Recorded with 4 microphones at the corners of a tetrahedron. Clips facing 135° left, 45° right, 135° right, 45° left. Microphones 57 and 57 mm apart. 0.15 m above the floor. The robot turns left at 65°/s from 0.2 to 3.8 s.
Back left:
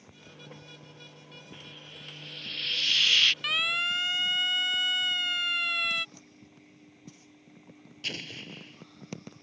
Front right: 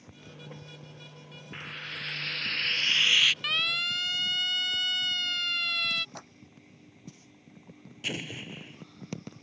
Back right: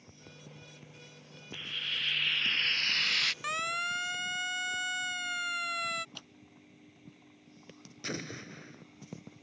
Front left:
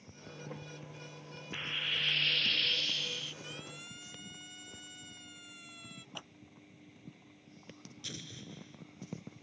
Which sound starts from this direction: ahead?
Frying, at 1.5 s.